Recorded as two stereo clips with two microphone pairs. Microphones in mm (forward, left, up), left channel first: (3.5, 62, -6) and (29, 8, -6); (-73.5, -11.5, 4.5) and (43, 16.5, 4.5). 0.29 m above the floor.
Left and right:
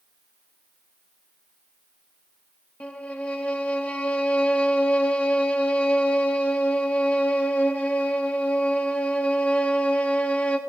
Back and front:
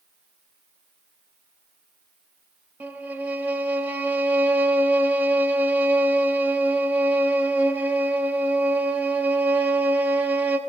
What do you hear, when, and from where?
2.8 s a violin: 80° left, 0.8 m